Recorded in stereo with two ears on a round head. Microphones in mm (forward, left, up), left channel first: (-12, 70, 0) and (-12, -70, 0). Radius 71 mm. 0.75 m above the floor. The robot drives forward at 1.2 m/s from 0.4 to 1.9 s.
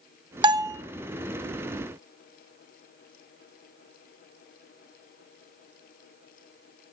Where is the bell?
30° right (ahead or behind), 0.7 m; by 0.8 s 20° right (ahead or behind), 1.1 m.